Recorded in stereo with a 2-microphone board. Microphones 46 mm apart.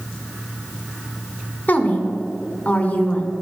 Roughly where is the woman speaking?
Left.